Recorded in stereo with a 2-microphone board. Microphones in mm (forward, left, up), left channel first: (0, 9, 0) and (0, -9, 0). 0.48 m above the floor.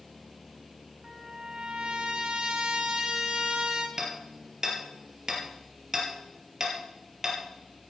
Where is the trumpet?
60° right (ahead or behind), 1.8 m.